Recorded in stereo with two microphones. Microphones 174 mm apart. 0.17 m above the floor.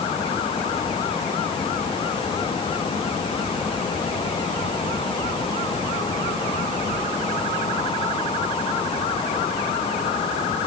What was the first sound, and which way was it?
Only background noise.